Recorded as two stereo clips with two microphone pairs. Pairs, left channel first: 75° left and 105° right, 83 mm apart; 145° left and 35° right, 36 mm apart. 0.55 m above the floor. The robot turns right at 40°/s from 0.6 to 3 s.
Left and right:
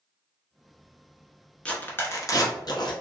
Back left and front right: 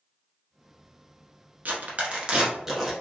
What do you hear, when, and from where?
1.6 s tearing paper: straight ahead, 1.1 m; by 2.9 s 50° left, 1.1 m